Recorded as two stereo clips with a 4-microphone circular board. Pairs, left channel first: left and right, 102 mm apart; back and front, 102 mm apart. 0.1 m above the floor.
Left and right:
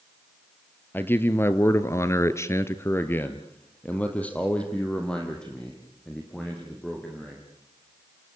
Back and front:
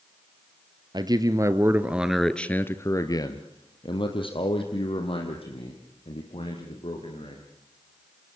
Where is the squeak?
I don't hear a squeak.